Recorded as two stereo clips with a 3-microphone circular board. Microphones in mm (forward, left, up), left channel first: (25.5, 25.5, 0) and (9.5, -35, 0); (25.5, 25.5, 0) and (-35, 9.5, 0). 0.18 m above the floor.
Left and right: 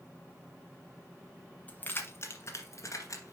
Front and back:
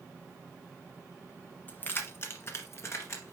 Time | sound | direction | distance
1.7 | keys jangling | 40° left | 1.1 m